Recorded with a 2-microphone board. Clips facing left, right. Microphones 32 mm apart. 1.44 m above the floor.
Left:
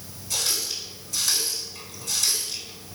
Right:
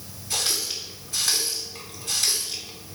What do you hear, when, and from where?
0.3 s a running tap: 35° right (ahead or behind), 2.5 m